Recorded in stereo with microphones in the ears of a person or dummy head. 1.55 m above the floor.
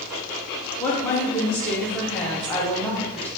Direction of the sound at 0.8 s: 10° left (ahead or behind).